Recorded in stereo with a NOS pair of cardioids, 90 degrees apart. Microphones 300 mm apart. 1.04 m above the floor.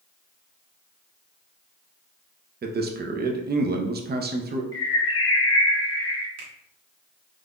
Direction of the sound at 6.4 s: 60° right.